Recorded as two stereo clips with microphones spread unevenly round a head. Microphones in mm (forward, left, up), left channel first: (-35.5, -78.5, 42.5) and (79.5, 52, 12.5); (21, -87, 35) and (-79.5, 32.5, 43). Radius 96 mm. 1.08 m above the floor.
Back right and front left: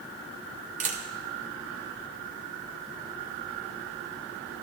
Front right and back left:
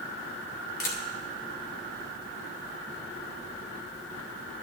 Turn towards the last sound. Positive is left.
turn(degrees=-5)